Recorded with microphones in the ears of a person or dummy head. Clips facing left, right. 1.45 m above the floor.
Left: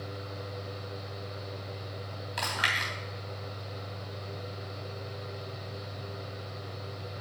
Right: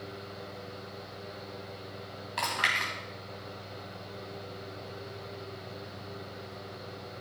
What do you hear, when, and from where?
0.0 s a fan: 55° left (ahead or behind), 2.0 m
2.4 s chewing: 10° left (ahead or behind), 2.5 m